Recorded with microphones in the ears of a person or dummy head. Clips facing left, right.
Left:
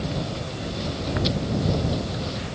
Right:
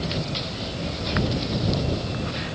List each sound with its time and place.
Only background noise.